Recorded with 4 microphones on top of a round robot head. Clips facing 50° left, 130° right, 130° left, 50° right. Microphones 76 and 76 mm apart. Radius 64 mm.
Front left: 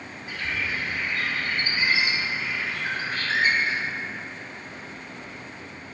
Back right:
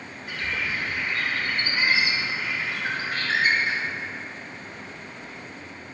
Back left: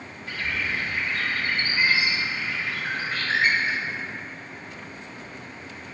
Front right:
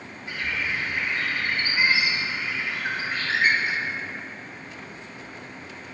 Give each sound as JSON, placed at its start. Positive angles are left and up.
{"t": 0.3, "sound": "a bird", "azimuth_deg": -120, "distance_m": 2.0}